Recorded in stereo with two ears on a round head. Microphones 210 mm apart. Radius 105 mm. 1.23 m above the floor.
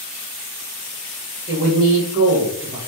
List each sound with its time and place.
1.5 s a man speaking: 35° right (ahead or behind), 1.0 m